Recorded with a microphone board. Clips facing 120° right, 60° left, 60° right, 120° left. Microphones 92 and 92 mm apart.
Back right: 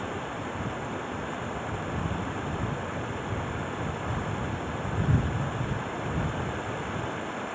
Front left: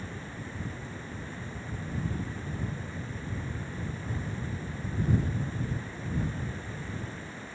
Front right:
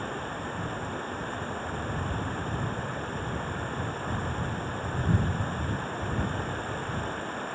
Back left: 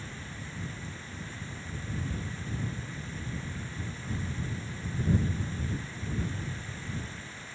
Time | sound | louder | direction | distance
0.0 | running water | back right 8 dB, front right 10 dB | 95° right | ?